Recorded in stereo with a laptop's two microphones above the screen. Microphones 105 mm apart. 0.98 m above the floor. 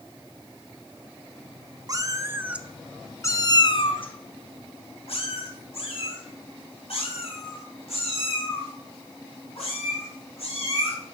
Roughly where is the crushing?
I don't hear crushing.